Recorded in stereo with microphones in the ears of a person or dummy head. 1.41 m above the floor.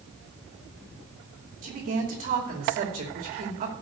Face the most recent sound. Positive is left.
turn(degrees=-45)  # may be behind; listen again after turning